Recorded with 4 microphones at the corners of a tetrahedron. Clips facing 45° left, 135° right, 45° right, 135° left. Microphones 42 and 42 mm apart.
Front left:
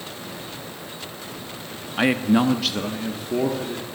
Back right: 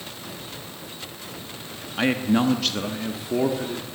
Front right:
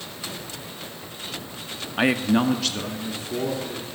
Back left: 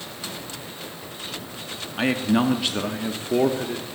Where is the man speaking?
10° right, 0.9 m; by 3.9 s 145° left, 1.6 m.